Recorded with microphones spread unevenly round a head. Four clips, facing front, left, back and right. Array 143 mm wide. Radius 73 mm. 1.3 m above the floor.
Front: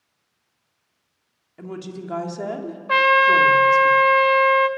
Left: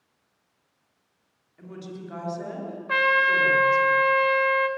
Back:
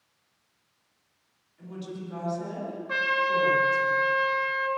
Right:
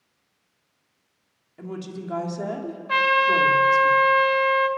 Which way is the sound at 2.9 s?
5° right.